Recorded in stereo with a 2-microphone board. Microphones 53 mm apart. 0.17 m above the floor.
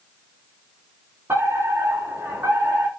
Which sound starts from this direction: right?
A fire alarm, at 1.3 s.